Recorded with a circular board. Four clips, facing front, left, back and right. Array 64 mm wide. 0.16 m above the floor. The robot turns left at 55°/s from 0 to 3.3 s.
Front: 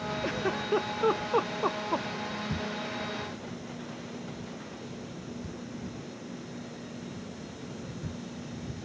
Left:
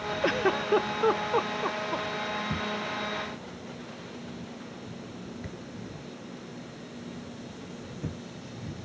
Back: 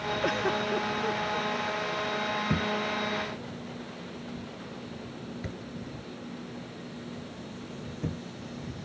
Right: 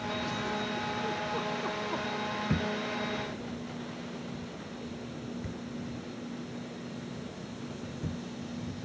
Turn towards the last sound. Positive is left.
turn(degrees=160)